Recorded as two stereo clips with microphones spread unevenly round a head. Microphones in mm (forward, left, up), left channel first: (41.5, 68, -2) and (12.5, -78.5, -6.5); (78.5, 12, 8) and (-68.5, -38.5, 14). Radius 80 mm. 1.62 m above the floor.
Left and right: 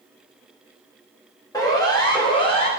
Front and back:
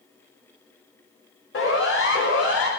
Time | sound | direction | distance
1.5 | a siren | 15° left | 6 m